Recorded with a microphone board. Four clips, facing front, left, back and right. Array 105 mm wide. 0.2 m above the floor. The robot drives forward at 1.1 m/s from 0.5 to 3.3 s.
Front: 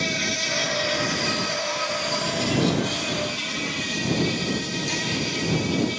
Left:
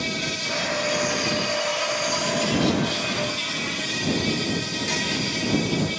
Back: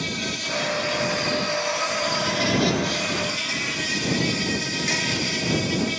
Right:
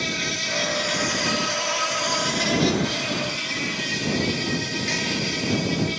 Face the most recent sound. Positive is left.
turn(degrees=-150)